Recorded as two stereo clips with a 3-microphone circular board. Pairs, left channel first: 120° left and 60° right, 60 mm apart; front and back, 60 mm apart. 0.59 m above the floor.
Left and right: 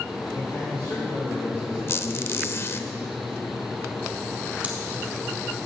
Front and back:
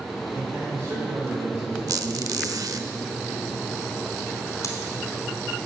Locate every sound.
0.3 s a man speaking: 145° left, 2.5 m
1.9 s a squeak: 165° left, 0.5 m
4.6 s scissors: 5° left, 2 m